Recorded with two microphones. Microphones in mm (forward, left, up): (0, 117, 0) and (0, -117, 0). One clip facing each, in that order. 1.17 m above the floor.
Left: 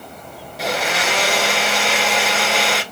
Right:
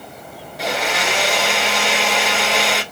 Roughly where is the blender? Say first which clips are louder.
Even; centre.